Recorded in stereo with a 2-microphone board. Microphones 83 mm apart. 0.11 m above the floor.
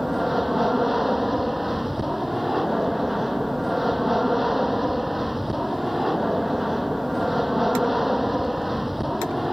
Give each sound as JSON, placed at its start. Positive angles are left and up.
{"t": 0.0, "sound": "an aircraft", "side_deg": 0}